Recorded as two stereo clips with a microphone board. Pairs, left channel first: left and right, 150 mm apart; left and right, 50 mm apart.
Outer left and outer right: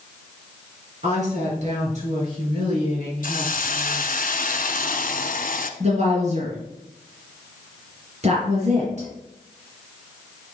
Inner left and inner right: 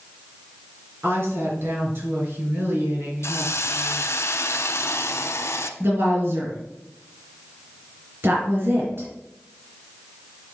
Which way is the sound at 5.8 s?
50° right (ahead or behind).